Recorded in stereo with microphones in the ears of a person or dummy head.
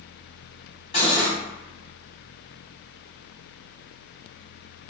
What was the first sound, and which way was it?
Cutlery clinking, 35° left (ahead or behind).